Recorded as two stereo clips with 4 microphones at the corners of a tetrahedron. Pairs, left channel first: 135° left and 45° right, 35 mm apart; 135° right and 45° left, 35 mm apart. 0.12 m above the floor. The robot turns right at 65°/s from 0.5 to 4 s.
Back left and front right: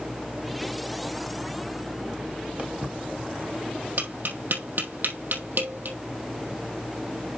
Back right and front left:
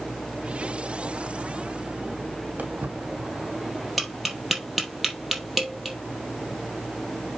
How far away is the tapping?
About 2.5 m.